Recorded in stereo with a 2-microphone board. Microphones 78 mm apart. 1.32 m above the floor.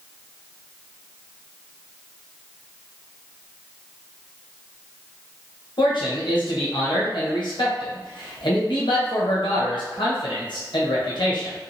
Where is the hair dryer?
I don't hear a hair dryer.